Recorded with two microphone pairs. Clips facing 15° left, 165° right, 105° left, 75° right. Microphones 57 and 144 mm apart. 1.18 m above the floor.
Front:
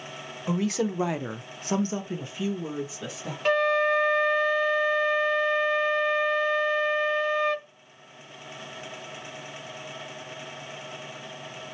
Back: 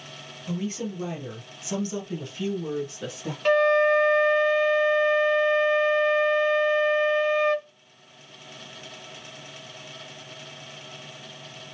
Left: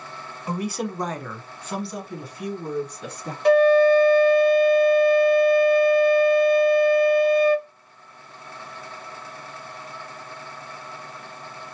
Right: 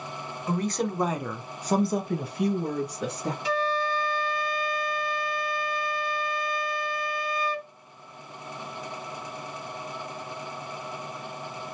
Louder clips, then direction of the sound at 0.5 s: Front 4 dB, even; 30° left.